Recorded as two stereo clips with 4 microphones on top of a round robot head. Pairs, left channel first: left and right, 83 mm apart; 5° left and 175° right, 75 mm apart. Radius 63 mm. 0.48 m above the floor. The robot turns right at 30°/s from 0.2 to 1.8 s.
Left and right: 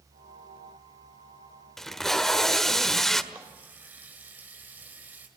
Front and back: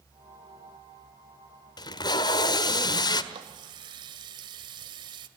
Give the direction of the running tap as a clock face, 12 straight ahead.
5 o'clock.